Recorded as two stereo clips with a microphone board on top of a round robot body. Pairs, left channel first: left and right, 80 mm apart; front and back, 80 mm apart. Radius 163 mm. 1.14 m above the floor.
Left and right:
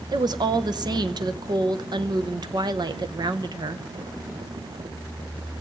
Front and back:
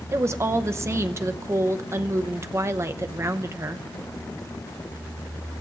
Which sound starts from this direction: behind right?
A woman speaking, at 0.1 s.